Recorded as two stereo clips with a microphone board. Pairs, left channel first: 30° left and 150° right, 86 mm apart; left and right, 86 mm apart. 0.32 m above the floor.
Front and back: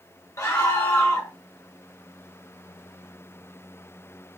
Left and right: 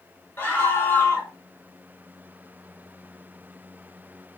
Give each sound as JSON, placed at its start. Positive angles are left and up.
{"t": 0.4, "sound": "a scream", "azimuth_deg": 40, "distance_m": 1.6}